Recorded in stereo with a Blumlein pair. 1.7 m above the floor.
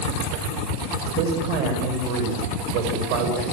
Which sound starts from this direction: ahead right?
A man speaking, at 1.2 s.